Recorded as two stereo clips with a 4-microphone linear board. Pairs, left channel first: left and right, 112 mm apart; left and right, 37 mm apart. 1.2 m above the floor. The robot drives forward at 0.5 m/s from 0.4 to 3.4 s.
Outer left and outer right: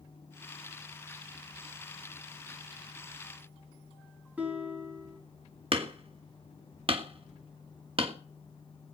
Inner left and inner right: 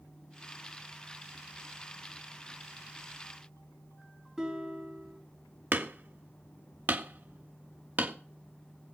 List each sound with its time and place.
4.4 s a guitar: 15° right (ahead or behind), 5 m
5.7 s hammering: 55° right (ahead or behind), 1.5 m